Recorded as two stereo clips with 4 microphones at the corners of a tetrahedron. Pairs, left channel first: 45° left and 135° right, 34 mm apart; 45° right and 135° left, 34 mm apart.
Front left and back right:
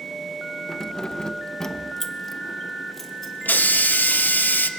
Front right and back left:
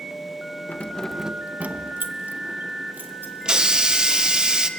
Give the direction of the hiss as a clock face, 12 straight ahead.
10 o'clock.